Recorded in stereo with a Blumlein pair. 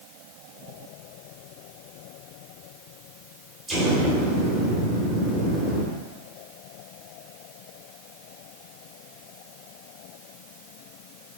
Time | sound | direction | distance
3.7 | an explosion | 15° right | 3.5 m